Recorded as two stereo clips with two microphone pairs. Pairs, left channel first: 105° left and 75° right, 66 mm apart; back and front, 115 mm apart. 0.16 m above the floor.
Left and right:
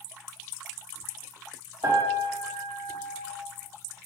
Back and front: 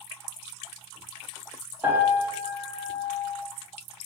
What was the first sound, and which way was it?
A piano, 75° right.